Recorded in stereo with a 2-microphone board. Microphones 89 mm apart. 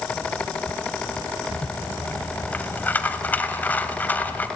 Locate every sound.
1.5 s a rattle: 20° left (ahead or behind), 1.1 m